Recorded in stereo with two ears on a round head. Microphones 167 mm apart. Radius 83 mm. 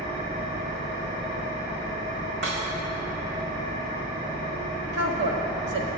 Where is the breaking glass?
75° right (ahead or behind), 3.5 m.